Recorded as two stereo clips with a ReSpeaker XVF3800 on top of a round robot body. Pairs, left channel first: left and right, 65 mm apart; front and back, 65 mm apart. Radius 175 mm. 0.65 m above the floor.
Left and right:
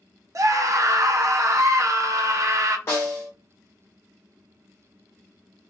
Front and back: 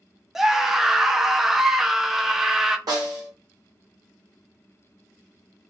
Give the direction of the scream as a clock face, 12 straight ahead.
3 o'clock.